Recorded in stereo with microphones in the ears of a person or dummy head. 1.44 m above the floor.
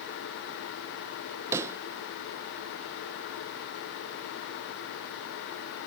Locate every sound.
1.5 s a pop: 15° right (ahead or behind)